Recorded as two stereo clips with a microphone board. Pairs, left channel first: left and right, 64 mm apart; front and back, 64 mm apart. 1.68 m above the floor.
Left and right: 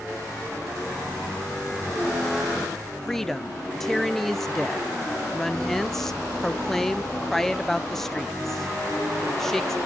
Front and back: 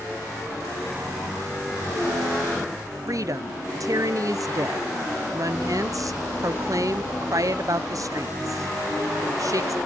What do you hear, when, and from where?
3.1 s a woman speaking: 175° left, 0.6 m